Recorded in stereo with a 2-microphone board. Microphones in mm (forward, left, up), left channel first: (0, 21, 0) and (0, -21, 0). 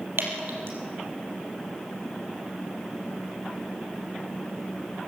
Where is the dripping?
75° right (ahead or behind), 4 m.